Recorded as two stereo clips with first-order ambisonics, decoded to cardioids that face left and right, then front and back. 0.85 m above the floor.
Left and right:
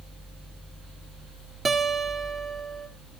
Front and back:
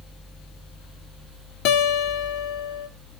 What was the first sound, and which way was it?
A guitar, 15° right.